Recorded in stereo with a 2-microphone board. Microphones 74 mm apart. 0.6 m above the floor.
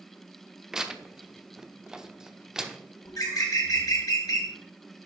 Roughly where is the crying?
I don't hear crying.